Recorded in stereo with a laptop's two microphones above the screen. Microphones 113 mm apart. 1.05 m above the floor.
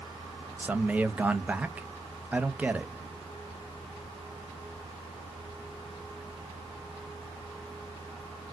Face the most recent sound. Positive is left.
turn(degrees=-15)  # may be behind; listen again after turning